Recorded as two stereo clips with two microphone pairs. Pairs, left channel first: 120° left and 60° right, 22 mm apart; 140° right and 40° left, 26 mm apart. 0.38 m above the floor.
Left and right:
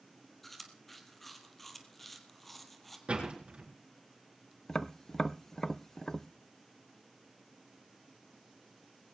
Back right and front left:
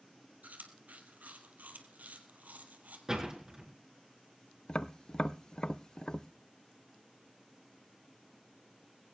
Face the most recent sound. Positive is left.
turn(degrees=180)